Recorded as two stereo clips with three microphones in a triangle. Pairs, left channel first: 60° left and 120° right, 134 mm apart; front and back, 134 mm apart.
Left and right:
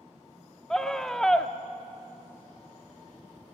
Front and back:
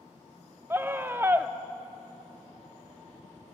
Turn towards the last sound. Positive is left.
turn(degrees=140)